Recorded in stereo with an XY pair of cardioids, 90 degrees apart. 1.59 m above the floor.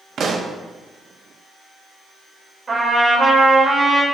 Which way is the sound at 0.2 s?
55° right.